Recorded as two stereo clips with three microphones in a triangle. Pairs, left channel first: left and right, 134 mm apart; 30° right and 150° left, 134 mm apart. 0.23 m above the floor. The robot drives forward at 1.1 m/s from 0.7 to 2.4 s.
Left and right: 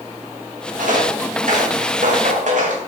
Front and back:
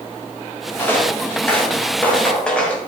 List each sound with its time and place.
0.8 s footsteps: 105° right, 4.5 m; by 2.9 s 110° right, 4.5 m